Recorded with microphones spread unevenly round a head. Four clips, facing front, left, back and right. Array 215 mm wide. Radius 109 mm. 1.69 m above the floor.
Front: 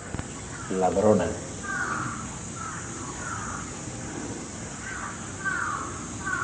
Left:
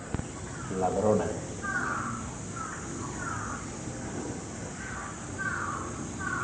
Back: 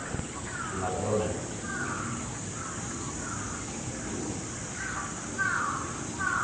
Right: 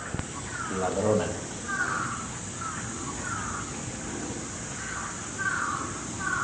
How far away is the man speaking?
About 2 m.